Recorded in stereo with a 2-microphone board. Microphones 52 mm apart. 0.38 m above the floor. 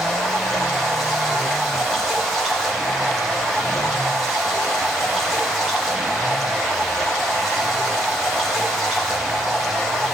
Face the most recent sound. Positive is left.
turn(degrees=-10)  # may be behind; listen again after turning